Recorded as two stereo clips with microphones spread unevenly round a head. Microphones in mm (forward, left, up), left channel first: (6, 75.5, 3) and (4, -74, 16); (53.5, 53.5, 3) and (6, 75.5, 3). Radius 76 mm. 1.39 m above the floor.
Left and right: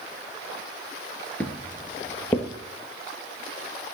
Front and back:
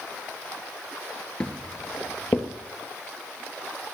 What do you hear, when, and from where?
1.4 s footsteps: 10° left, 1.4 m; by 2.5 s 15° left, 1.8 m